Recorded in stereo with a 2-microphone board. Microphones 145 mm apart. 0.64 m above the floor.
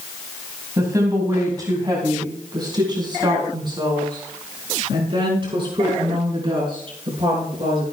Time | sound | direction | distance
0.8 | a woman speaking | 25° right (ahead or behind) | 3 m